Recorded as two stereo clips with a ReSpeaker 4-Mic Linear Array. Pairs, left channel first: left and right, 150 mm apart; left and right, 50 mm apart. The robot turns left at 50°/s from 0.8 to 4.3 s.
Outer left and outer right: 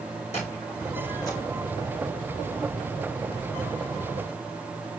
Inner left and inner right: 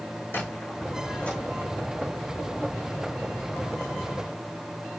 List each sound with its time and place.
0.3 s a squeak: 45° left (ahead or behind), 5 m; by 1.4 s 20° left (ahead or behind), 5 m